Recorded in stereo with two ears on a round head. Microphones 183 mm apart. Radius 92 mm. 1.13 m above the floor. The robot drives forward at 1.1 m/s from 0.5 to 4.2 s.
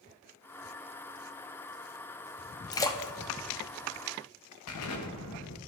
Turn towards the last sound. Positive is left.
turn(degrees=85)